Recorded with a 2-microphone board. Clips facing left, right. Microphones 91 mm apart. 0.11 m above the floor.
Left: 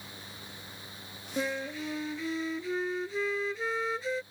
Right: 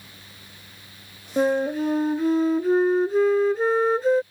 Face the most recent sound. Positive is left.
turn(degrees=-50)  # may be behind; listen again after turning